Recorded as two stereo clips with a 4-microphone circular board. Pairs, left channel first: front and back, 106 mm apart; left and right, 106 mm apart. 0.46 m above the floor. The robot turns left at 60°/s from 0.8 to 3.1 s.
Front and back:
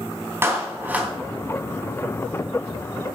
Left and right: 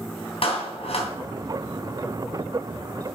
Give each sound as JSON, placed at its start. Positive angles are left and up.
{"t": 0.4, "sound": "a clap", "azimuth_deg": 115, "distance_m": 3.0}